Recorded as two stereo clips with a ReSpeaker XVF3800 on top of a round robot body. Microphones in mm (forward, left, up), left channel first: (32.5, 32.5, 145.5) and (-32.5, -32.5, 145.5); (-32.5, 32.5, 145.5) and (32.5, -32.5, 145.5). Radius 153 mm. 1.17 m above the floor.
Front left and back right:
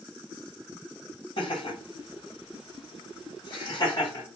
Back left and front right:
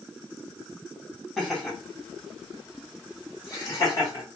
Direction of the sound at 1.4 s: 50° left.